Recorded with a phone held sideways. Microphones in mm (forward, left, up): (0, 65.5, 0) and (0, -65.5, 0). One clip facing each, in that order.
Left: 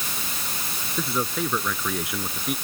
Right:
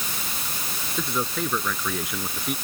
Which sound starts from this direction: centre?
A man speaking, at 1.0 s.